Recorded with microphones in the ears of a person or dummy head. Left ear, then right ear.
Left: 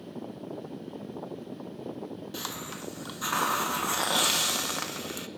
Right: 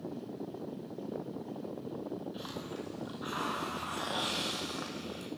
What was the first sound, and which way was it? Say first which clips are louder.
A hiss: left 4 dB; 65° left (ahead or behind).